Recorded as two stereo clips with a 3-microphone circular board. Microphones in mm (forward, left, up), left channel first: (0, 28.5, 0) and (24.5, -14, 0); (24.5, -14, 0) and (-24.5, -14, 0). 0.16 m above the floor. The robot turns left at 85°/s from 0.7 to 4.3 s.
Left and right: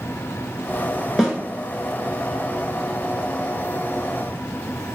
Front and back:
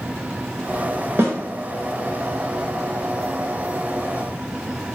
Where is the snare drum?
145° right, 0.7 m; by 1.4 s 160° right, 0.7 m.